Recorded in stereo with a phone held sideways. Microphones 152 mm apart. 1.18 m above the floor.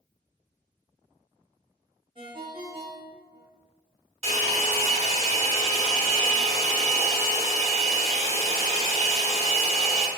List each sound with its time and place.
2.1 s a ringtone: 30° right (ahead or behind), 1.1 m
4.2 s a hair dryer: 40° right (ahead or behind), 1.3 m